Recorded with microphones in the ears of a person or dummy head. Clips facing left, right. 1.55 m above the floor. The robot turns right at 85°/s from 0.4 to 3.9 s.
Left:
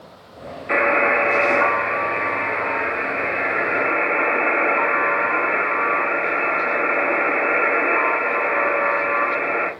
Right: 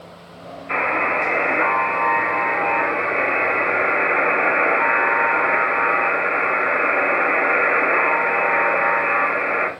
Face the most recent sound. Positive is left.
turn(degrees=-30)